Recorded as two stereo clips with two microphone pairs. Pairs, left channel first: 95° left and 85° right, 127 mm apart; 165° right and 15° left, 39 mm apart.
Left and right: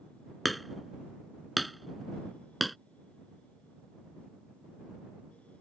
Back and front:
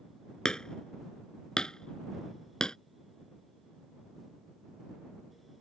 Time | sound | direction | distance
0.5 | hammering | 175° right | ?